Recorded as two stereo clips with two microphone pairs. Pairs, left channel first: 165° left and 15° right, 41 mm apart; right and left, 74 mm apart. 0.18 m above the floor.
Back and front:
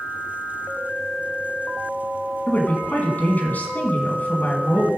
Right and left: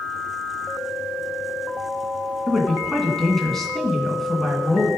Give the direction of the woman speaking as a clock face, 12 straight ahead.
6 o'clock.